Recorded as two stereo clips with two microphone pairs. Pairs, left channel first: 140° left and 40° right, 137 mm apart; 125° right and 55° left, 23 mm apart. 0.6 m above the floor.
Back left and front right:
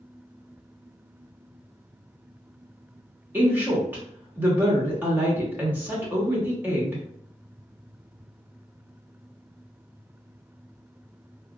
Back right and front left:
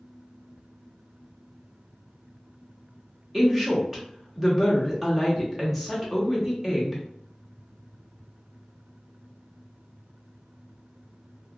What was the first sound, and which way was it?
A woman speaking, 5° right.